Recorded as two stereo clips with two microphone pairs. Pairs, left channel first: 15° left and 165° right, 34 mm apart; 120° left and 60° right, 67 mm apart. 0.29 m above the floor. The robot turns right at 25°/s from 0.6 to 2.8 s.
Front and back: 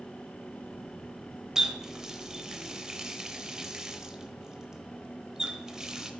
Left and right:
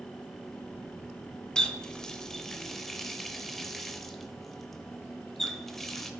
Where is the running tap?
160° left, 0.5 m; by 6.1 s 170° right, 0.5 m.